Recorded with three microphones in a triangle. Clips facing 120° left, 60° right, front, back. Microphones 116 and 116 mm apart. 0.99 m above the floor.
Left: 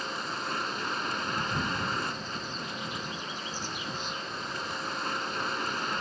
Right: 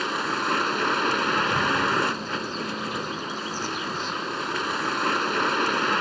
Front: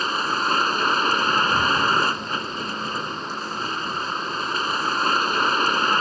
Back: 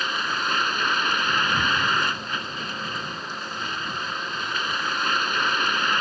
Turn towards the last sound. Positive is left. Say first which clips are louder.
# right 8 dB, front 4 dB
turn(degrees=-55)